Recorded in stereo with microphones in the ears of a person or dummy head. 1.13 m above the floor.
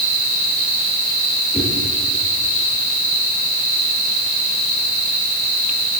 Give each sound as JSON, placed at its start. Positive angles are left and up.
{"t": 1.5, "sound": "a whoosh", "side_deg": 5, "distance_m": 9.0}